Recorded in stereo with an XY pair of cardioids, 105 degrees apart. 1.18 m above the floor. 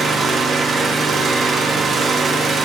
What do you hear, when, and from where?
0.0 s an engine running: 45° right, 1.7 m